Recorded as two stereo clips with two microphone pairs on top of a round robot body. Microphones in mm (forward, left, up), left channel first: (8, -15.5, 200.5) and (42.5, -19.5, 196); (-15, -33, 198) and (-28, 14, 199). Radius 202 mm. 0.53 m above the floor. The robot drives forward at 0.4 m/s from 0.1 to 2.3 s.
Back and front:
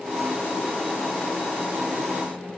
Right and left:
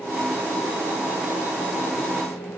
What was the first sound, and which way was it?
Only background noise.